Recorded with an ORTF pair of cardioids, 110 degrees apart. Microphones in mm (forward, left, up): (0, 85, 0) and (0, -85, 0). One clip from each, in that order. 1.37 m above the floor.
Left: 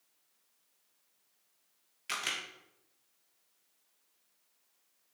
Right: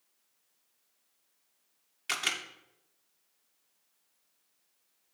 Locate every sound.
2.1 s a camera shutter: 30° right, 1.4 m